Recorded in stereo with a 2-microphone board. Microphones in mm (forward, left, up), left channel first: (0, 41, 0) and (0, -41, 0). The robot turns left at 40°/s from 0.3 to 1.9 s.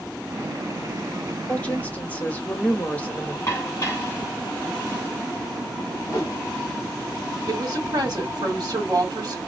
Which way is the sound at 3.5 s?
30° left (ahead or behind).